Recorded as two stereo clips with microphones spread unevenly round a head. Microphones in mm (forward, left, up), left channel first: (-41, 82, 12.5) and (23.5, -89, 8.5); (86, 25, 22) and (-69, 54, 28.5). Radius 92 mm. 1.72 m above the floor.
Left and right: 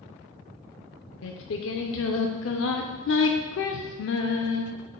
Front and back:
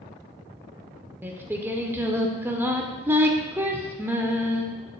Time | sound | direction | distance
1.2 | singing | 90° left | 0.6 m